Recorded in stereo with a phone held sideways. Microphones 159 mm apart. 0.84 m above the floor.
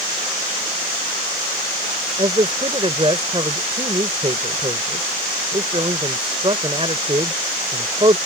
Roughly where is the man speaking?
Right.